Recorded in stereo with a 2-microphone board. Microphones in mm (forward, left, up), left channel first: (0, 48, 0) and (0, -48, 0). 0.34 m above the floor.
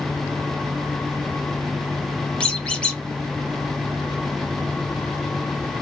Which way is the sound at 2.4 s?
10° left (ahead or behind).